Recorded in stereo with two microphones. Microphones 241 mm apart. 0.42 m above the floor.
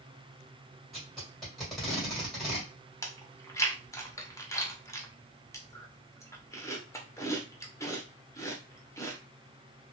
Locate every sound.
0.9 s tape being pulled: centre (ahead or behind), 1.8 m
3.0 s chewing: 15° left (ahead or behind), 0.7 m